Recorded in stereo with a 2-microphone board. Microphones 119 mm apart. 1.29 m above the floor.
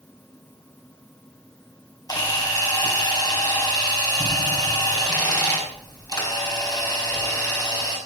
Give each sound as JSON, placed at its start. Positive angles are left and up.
{"t": 2.1, "sound": "a camera shutter", "side_deg": 30, "distance_m": 5.0}